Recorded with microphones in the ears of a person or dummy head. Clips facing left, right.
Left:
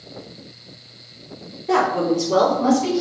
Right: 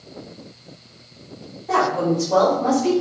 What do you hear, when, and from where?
1.7 s a woman speaking: 40° left (ahead or behind), 3 m; by 2.9 s 60° left (ahead or behind), 4 m